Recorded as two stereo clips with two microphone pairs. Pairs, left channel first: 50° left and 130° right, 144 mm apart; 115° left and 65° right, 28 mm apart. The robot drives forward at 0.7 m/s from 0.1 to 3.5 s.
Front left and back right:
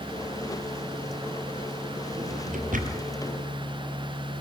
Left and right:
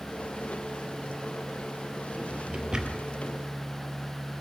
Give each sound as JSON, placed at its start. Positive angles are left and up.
{"t": 2.1, "sound": "a drawer", "azimuth_deg": -115, "distance_m": 1.7}